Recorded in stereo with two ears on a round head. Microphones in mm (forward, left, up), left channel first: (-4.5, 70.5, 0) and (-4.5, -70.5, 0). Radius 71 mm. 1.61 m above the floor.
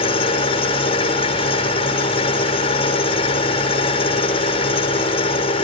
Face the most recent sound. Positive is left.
turn(degrees=40)  # may be behind; listen again after turning